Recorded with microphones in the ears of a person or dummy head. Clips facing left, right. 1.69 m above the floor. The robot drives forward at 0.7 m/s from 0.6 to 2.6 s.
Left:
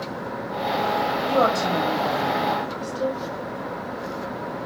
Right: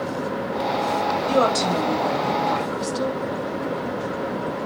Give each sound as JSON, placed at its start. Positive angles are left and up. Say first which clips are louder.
{"t": 1.3, "sound": "a woman speaking", "louder": "right 1 dB", "side_deg": -50, "distance_m": 5.5}